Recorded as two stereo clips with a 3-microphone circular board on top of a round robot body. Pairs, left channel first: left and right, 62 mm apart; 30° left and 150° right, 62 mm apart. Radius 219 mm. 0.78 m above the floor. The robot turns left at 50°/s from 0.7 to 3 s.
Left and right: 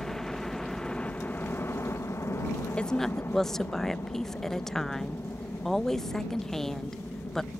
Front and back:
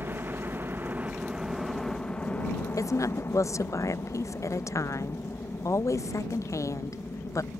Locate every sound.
0.0 s a helicopter: 170° left; by 7.6 s 55° left
2.8 s a woman speaking: 20° left; by 7.5 s 5° left